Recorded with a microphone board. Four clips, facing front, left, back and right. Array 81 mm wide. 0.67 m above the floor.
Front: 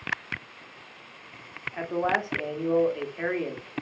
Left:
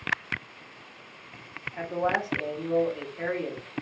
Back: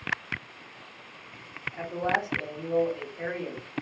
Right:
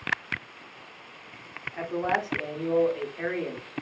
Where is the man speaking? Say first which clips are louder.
Even, front 2 dB; 10° right, 0.8 m.